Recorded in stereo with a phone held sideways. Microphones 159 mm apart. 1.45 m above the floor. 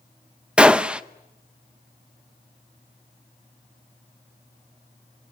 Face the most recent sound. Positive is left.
turn(degrees=-5)  # may be behind; listen again after turning